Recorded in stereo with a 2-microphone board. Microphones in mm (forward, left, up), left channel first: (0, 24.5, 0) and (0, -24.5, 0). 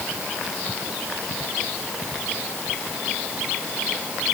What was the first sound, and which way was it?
Only background noise.